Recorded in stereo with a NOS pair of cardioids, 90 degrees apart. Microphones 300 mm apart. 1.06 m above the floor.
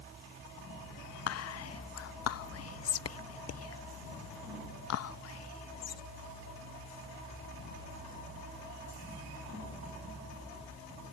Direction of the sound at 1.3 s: 55° left.